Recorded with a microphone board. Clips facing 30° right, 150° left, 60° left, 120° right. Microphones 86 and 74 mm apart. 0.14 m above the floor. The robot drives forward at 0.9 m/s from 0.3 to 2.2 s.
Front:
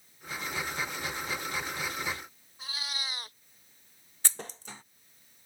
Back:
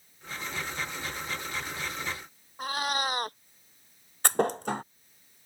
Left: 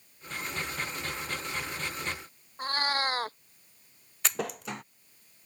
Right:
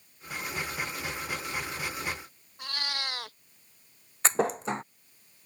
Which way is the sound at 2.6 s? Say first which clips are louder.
Back 12 dB, left 7 dB; 115° left.